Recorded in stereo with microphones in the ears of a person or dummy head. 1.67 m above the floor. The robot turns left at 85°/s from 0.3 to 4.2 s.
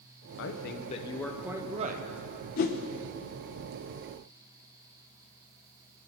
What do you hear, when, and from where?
0.4 s a woman speaking: 85° left, 1.0 m; by 2.1 s 55° right, 1.0 m
2.6 s a whoosh: 40° left (ahead or behind), 0.8 m